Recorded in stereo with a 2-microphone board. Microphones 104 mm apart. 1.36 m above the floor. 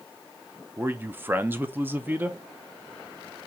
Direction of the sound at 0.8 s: 20° right (ahead or behind).